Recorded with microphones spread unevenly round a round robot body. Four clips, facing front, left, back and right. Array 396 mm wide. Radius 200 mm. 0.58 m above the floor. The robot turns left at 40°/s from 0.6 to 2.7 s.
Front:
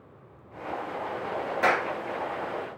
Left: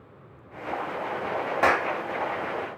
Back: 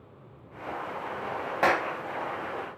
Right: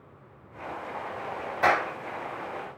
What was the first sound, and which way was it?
A clap, 125° left.